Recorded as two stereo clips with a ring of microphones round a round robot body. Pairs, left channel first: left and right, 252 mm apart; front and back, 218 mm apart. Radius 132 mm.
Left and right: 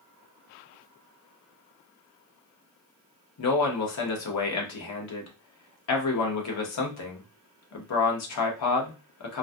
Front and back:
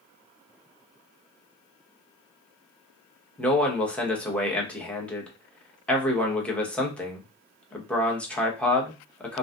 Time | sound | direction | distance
3.4 | a man speaking | 85° left | 0.9 m